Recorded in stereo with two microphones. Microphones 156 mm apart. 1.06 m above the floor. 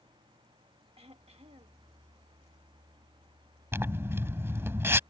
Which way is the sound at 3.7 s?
15° right (ahead or behind).